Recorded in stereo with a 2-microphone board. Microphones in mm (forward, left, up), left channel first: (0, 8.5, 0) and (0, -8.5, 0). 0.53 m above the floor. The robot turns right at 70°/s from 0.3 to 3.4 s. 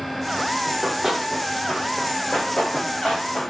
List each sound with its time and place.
0.7 s running footsteps: 50° right (ahead or behind), 8 m; by 3.5 s 55° left (ahead or behind), 9 m